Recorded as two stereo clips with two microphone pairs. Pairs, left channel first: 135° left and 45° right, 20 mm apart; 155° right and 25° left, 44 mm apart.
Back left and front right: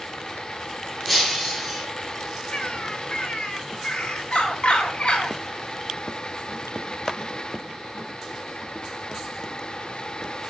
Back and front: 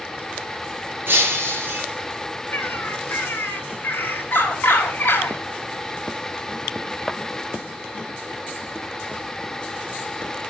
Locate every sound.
1.1 s breaking glass: 60° left, 5 m
2.5 s a bird: 160° left, 3 m